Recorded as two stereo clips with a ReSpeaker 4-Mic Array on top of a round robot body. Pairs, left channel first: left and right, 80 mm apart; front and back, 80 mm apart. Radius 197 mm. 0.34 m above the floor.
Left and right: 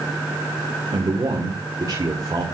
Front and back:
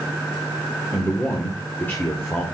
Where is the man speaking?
60° right, 2.5 m.